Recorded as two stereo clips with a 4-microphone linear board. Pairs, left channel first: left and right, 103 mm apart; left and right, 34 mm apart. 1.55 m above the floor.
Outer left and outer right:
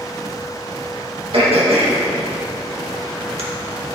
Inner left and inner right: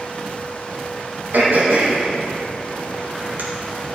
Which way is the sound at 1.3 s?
70° right (ahead or behind).